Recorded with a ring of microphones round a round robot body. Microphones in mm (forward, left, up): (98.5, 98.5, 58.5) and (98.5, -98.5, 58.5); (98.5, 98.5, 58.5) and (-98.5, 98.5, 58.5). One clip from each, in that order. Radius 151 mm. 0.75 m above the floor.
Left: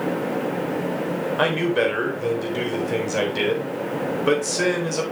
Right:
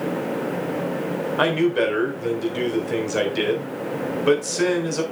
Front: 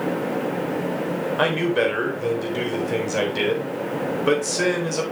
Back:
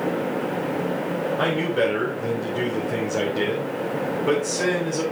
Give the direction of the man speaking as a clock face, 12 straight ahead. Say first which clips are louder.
Right 1 dB, front 3 dB; 1 o'clock.